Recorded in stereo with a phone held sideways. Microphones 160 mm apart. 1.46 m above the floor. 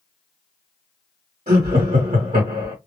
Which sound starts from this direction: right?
Laughter, at 1.5 s.